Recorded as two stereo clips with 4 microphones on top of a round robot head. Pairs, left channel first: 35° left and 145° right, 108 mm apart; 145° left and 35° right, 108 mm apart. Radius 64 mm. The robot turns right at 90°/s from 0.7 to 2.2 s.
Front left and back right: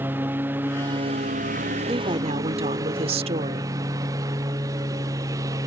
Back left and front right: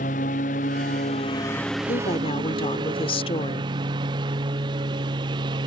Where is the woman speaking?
155° left; by 3.7 s 175° right.